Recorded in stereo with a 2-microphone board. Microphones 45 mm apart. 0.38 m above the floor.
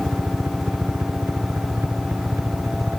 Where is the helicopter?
75° right (ahead or behind).